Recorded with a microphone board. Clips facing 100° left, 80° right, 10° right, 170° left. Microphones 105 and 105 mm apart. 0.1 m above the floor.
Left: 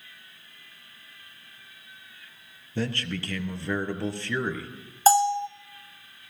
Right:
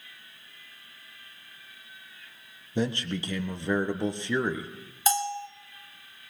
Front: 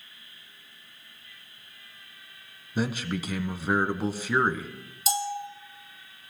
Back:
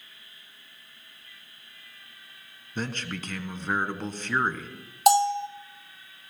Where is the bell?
150° left, 1.1 m.